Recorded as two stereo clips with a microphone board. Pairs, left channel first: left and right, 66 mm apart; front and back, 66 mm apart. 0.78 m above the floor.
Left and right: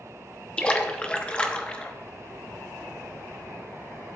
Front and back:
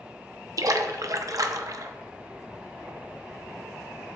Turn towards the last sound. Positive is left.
turn(degrees=165)